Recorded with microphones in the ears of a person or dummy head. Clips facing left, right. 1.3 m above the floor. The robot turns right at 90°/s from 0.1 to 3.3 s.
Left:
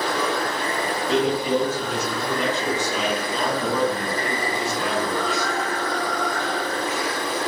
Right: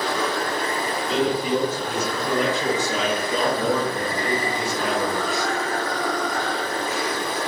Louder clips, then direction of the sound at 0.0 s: Left 1 dB; 175° left.